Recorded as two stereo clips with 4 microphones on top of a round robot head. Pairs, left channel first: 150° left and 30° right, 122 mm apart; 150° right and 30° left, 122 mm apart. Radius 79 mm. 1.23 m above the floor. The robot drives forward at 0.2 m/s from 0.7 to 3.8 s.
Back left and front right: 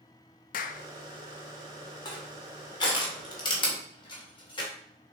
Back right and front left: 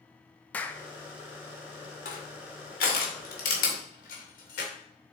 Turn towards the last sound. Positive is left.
turn(degrees=-160)